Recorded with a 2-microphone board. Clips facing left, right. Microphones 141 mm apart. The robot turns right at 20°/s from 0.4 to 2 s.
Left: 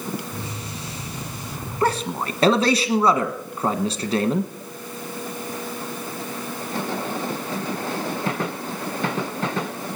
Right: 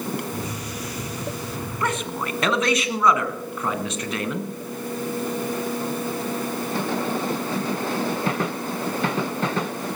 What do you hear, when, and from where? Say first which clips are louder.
1.8 s a man speaking: left 5 dB; 35° left (ahead or behind), 1.3 m